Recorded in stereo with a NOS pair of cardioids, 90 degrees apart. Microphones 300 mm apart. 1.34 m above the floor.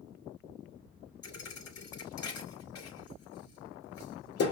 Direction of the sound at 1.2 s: 55° left.